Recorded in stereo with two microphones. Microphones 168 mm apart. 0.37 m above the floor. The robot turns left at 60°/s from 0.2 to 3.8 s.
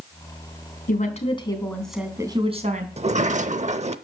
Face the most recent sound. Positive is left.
turn(degrees=-110)